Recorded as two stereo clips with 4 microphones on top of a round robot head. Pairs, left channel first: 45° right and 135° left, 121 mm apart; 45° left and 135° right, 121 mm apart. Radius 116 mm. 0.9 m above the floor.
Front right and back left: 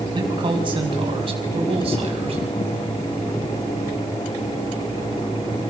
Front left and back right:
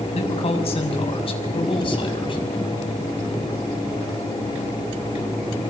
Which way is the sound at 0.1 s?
80° left.